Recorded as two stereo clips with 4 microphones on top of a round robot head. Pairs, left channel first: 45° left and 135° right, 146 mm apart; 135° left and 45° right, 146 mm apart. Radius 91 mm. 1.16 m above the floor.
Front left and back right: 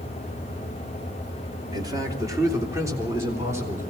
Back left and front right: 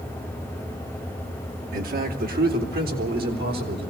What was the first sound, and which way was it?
A man speaking, 70° right.